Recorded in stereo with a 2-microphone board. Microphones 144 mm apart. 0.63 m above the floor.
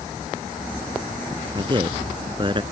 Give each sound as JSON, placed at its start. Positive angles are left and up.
{"t": 1.6, "sound": "a man speaking", "side_deg": -30}